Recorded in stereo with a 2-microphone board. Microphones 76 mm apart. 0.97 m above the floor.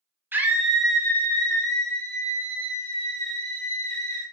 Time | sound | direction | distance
0.3 | a scream | 25° right (ahead or behind) | 0.5 m